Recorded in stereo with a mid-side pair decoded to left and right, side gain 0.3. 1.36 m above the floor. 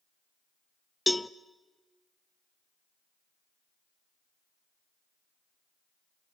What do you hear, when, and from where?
1.1 s a cowbell: 15° left, 0.7 m